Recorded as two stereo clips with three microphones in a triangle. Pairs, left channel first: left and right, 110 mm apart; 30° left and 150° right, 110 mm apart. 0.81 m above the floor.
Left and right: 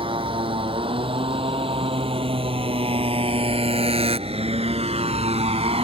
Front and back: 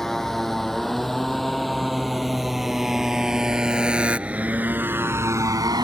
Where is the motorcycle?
55° right; by 5.8 s 105° right.